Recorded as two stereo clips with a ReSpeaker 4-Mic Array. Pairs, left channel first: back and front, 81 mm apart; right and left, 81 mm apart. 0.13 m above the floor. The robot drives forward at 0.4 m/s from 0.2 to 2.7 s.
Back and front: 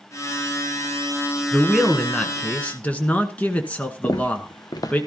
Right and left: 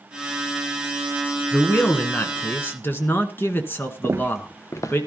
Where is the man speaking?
80° right, 1.2 m; by 5.0 s 125° right, 1.2 m.